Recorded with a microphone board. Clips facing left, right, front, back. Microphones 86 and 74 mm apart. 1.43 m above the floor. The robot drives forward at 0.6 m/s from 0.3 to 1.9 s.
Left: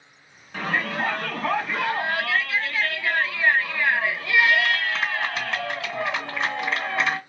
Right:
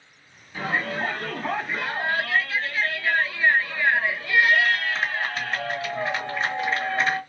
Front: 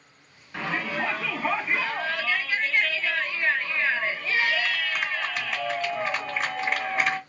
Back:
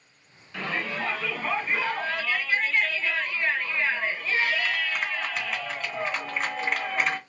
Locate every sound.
0.5 s a shout: 70° left, 2.5 m; by 7.2 s 90° left, 2 m